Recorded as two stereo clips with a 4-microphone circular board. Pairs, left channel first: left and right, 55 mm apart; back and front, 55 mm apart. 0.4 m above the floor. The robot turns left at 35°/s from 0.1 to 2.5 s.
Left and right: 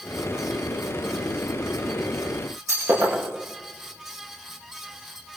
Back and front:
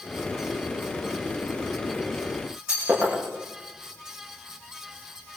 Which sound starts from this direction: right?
Breaking glass, at 2.7 s.